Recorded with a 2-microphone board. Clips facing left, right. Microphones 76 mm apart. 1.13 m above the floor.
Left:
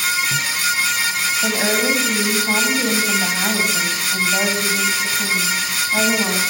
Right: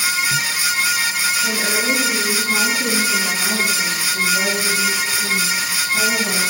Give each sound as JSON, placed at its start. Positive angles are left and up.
{"t": 1.4, "sound": "a woman speaking", "side_deg": 70, "distance_m": 8.0}